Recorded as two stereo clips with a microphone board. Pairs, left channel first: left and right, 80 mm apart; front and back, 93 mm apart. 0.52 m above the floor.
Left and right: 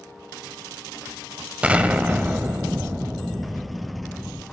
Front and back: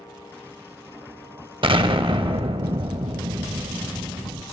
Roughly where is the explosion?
Behind.